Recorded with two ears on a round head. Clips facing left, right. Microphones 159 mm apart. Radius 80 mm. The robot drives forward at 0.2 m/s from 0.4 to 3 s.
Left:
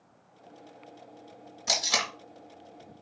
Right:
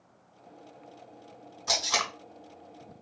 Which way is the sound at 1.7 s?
20° left (ahead or behind).